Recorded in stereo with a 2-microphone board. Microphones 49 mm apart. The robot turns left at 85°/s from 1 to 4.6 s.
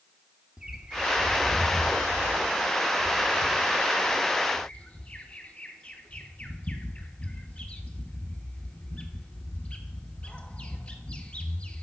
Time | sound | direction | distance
0.6 | a bird | 20° right | 1.1 m